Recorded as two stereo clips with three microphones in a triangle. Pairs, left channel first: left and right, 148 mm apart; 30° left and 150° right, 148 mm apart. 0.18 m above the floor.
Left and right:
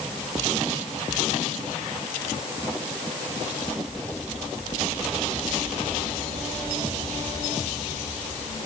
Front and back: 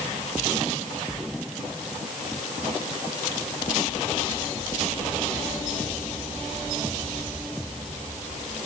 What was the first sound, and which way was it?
Only background noise.